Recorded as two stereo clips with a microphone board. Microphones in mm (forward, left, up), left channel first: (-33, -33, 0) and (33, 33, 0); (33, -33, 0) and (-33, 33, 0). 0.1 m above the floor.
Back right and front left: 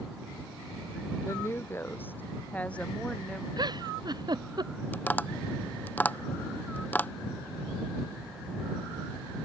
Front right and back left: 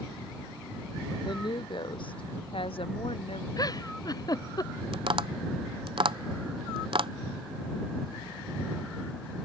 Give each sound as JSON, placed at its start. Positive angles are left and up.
{"t": 1.2, "sound": "a woman speaking", "azimuth_deg": -75}
{"t": 3.6, "sound": "a giggle", "azimuth_deg": 0}
{"t": 4.9, "sound": "tapping", "azimuth_deg": 155}